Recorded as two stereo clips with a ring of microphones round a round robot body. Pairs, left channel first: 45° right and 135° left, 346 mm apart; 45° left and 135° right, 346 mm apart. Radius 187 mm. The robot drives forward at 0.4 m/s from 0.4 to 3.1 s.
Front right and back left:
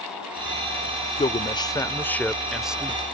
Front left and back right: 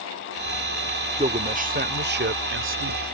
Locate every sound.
1.2 s a man speaking: 90° right; by 3.0 s 145° right